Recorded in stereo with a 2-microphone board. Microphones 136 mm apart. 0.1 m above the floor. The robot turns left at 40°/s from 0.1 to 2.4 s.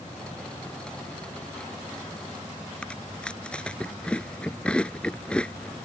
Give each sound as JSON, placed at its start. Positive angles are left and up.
{"t": 2.8, "sound": "chewing", "side_deg": 10}